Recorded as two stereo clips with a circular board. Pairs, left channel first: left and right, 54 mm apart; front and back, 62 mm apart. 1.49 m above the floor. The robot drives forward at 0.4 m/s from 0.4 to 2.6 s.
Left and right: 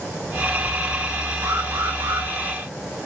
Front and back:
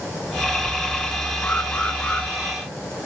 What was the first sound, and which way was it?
An alarm, 65° right.